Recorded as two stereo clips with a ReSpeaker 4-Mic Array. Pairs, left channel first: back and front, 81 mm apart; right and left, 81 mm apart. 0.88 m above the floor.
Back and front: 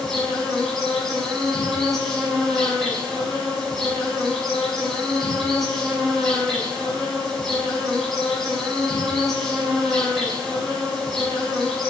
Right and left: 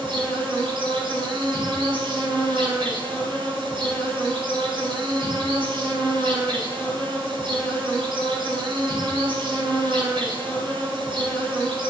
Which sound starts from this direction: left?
An insect, at 0.0 s.